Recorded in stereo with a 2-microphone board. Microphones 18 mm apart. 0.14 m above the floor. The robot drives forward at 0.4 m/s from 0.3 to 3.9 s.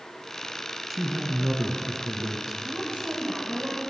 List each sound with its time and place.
0.9 s a man speaking: 20° right (ahead or behind), 1.3 m
2.6 s a woman speaking: 75° right (ahead or behind), 6 m